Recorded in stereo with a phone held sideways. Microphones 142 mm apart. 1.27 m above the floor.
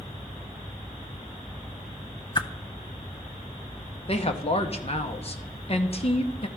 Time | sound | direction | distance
2.4 | a whoosh | 30° left (ahead or behind) | 0.5 m
4.1 | a woman speaking | 45° left (ahead or behind) | 1.0 m